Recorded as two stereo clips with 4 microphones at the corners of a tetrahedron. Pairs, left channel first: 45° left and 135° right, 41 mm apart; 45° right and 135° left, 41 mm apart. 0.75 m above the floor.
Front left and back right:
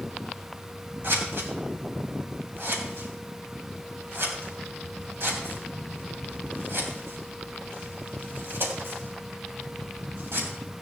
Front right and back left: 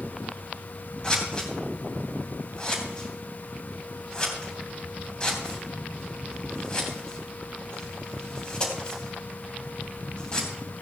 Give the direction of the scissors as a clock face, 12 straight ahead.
4 o'clock.